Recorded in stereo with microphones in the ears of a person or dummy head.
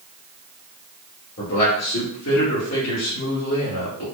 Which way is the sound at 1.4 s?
50° left (ahead or behind).